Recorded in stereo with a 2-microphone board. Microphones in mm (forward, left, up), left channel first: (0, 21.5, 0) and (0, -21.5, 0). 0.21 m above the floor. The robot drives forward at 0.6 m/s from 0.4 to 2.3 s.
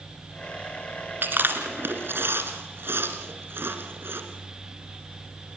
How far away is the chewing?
About 2.5 m.